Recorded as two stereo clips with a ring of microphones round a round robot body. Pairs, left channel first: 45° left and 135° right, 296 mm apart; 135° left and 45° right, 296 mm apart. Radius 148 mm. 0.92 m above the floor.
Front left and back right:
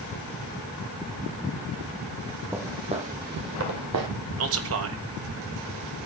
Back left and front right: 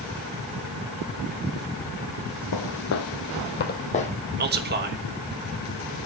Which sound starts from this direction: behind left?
Footsteps, at 2.5 s.